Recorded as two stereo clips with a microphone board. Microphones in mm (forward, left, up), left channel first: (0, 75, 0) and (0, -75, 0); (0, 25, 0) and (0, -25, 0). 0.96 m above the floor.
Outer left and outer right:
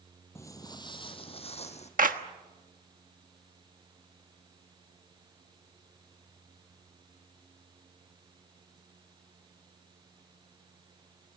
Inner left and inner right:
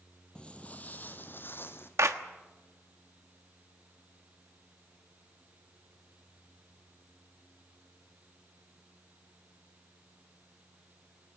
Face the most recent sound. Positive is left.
turn(degrees=-65)  # may be behind; listen again after turning